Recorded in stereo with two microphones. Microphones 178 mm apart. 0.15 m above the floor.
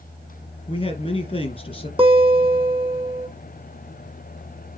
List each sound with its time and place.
0.7 s a man speaking: 30° left (ahead or behind), 3 m
2.0 s a guitar: 30° right (ahead or behind), 2.5 m